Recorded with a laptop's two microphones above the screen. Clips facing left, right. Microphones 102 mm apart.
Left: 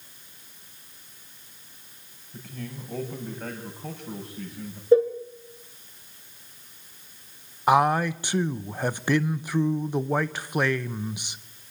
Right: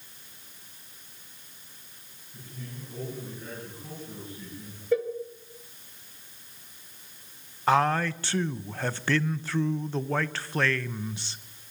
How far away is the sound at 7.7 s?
About 0.6 m.